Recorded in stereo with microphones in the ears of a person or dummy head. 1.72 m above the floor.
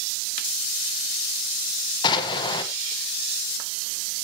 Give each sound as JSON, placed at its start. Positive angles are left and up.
{"t": 2.0, "sound": "an explosion", "side_deg": 25, "distance_m": 1.5}